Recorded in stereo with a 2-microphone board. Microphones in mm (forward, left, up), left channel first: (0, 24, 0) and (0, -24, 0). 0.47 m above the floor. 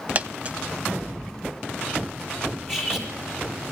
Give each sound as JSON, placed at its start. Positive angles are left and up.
{"t": 0.1, "sound": "a dropped coin", "side_deg": -35, "distance_m": 0.7}
{"t": 2.7, "sound": "cutlery clinking", "side_deg": -5, "distance_m": 7.5}